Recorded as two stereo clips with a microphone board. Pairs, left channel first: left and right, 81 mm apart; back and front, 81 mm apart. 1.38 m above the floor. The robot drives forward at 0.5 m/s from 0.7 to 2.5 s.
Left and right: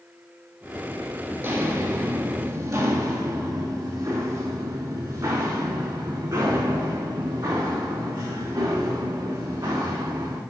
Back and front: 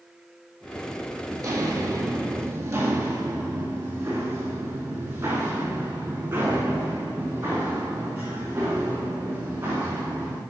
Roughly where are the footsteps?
Ahead right.